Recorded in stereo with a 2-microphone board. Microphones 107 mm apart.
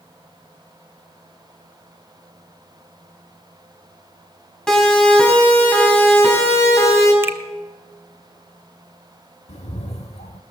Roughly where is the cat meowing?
Left.